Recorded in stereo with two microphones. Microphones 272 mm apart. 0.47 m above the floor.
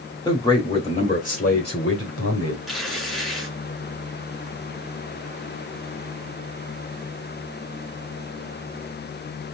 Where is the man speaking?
15° left (ahead or behind), 1.9 m; by 2.6 s 55° left (ahead or behind), 1.6 m.